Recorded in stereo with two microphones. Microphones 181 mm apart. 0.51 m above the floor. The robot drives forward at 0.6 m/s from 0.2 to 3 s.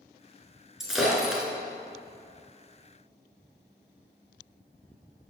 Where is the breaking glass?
Centre (ahead or behind), 2.5 m.